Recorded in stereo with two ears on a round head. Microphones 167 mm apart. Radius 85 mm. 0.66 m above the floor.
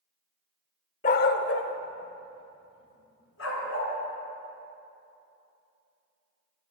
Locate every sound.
1.0 s a dog barking: 40° left (ahead or behind), 0.5 m; by 3.9 s 85° left, 3 m